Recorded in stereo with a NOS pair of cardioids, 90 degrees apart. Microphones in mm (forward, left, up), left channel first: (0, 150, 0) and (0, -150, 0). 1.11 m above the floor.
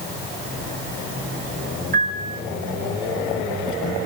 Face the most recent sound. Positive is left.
turn(degrees=-30)